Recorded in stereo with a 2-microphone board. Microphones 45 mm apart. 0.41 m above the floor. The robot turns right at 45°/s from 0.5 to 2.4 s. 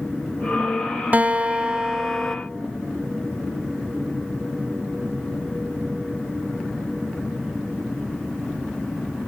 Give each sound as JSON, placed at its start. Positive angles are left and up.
{"t": 1.1, "sound": "a guitar", "azimuth_deg": -55, "distance_m": 0.7}